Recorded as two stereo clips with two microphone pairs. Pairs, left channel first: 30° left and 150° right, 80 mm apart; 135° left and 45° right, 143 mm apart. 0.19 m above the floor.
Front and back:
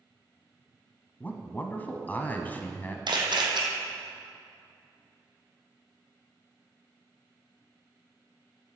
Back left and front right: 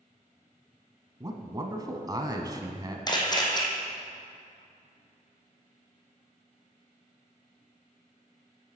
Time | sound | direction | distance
1.2 | a man speaking | 15° right | 1.1 m
3.1 | a camera shutter | 165° right | 1.8 m